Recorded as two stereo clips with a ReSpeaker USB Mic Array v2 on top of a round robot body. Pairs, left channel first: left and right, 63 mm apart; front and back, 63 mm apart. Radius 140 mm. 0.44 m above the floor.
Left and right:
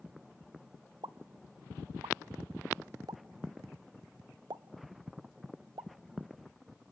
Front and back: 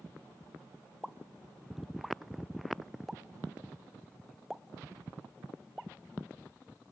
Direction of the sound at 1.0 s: 95° right.